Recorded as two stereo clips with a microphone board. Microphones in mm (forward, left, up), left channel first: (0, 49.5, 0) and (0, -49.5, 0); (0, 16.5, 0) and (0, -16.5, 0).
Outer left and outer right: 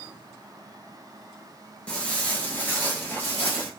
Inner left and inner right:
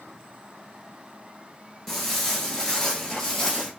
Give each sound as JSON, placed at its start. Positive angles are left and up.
{"t": 1.9, "sound": "footsteps", "side_deg": 10, "distance_m": 1.2}